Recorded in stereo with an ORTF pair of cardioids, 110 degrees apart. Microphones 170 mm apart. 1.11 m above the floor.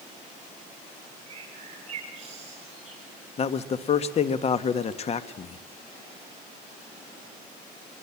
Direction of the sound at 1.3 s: 40° right.